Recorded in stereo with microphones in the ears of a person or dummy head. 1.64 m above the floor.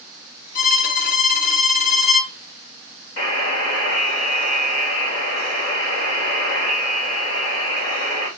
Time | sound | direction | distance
0.6 | a violin | 50° left (ahead or behind) | 1.1 m
3.2 | a buzzer | 35° left (ahead or behind) | 3.5 m